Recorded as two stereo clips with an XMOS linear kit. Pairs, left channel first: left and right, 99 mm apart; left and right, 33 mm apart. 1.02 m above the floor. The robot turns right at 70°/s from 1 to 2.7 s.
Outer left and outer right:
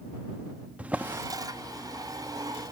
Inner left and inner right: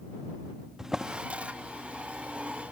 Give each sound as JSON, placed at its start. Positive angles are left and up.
{"t": 0.8, "sound": "a drawer", "side_deg": -15}